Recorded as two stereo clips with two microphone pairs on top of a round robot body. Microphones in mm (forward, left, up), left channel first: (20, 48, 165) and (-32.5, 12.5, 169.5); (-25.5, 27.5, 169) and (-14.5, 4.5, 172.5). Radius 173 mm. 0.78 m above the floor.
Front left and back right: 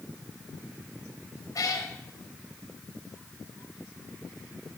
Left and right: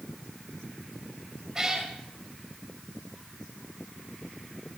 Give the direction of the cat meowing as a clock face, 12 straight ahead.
12 o'clock.